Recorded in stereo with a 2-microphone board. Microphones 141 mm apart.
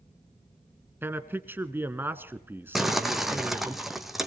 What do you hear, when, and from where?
1.0 s a man speaking: 15° right (ahead or behind), 1.3 m
2.8 s crumpling: centre (ahead or behind), 1.8 m